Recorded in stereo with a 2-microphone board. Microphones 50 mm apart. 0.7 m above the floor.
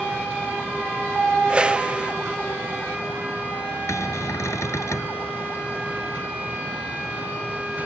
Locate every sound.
1.5 s a whoosh: 25° right (ahead or behind)
3.9 s a cupboard door: 85° left